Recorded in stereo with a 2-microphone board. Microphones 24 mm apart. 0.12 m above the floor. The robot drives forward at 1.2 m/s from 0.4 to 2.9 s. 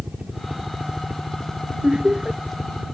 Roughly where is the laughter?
Right.